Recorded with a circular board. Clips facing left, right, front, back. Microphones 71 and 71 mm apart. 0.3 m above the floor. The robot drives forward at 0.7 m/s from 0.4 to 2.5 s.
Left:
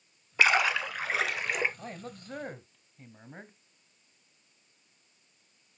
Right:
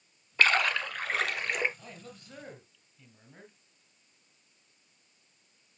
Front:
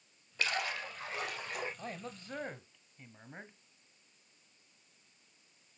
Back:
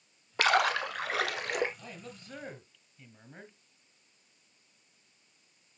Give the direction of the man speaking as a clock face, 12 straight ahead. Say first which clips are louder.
Left 6 dB, front 3 dB; 10 o'clock.